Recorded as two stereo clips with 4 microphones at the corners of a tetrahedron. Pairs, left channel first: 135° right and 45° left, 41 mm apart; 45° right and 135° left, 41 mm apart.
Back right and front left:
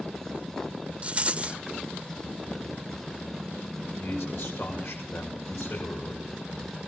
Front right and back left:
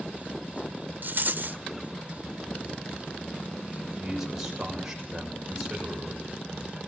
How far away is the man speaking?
About 7 m.